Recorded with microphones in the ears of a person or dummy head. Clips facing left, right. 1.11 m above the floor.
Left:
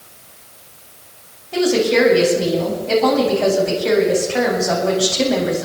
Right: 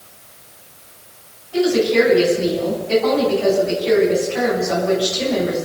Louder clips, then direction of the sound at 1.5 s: Even; 85° left.